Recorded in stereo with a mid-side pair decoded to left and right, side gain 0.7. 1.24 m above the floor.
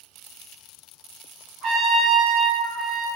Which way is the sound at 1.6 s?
60° right.